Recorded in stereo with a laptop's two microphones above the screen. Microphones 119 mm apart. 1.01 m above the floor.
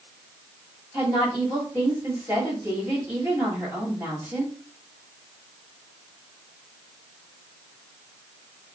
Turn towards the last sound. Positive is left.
turn(degrees=-15)  # may be behind; listen again after turning